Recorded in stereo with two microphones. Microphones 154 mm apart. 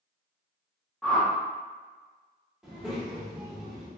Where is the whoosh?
5° left (ahead or behind), 0.6 m.